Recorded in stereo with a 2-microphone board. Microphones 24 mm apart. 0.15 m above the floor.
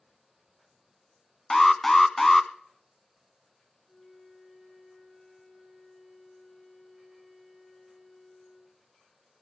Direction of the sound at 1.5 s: 10° left (ahead or behind).